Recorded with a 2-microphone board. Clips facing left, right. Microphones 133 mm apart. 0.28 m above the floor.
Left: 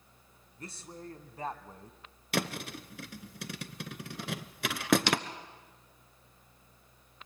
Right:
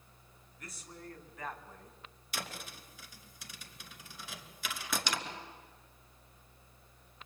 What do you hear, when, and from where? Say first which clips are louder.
0.6 s a man speaking: left 5 dB; 30° left (ahead or behind), 2.5 m
2.3 s a thud: left 11 dB; 65° left (ahead or behind), 0.9 m